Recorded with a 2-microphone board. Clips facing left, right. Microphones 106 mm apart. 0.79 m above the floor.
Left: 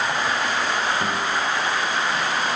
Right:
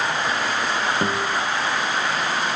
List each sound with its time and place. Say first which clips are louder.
1.0 s a guitar: right 2 dB; 30° right (ahead or behind), 1.1 m